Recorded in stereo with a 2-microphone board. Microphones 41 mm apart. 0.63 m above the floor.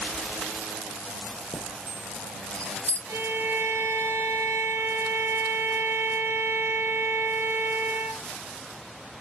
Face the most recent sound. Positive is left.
turn(degrees=-80)